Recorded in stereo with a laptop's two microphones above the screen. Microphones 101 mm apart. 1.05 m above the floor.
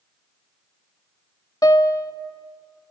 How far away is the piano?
About 0.6 m.